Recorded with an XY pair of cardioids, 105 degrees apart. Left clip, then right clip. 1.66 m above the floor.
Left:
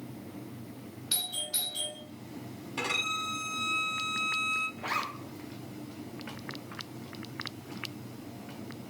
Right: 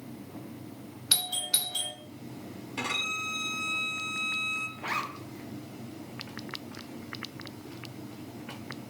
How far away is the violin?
About 3 m.